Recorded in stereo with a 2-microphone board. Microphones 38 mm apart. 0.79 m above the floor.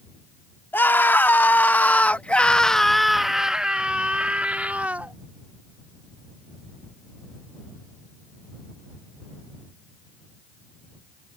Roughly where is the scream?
Left.